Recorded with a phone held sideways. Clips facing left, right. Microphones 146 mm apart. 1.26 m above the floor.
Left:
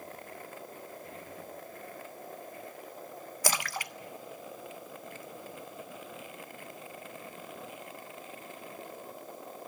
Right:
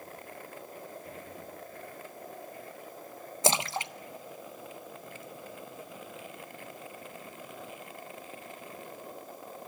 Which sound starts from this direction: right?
A splash, at 3.4 s.